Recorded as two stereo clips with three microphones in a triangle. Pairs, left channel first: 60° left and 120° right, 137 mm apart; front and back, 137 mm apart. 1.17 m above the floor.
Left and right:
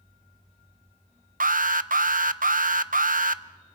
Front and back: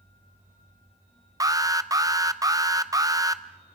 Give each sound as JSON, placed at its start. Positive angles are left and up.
{"t": 1.4, "sound": "an alarm", "azimuth_deg": -120, "distance_m": 0.6}